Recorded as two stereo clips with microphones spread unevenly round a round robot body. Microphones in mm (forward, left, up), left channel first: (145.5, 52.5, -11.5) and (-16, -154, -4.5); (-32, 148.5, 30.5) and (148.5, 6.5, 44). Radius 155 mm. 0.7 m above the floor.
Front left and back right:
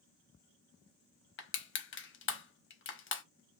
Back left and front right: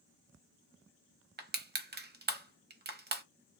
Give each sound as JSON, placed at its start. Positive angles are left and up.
{"t": 1.4, "sound": "crushing", "azimuth_deg": 10, "distance_m": 0.9}